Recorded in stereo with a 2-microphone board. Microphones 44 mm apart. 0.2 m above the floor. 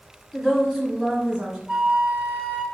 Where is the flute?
15° right (ahead or behind), 0.6 m.